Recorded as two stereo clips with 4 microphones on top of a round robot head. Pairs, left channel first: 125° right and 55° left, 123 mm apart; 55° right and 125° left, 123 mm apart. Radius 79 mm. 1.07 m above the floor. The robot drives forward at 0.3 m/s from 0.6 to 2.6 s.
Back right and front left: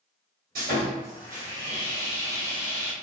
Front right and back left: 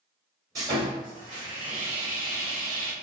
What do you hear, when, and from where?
0.6 s sawing: 65° left, 1.3 m; by 2.9 s 95° left, 1.2 m